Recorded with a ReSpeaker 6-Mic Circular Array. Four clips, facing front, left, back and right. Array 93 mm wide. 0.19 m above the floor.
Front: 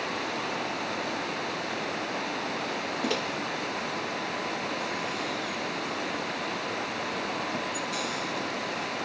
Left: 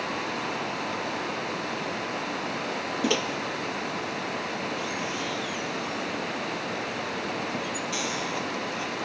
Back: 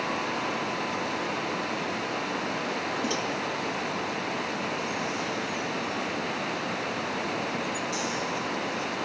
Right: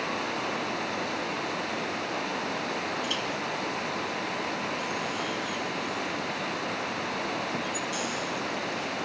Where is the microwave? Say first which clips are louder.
Left 4 dB, back 1 dB; 75° left.